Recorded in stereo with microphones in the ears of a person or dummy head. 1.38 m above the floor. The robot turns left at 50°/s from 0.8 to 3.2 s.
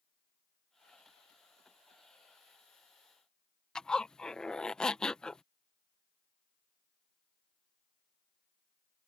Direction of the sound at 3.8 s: 5° right (ahead or behind).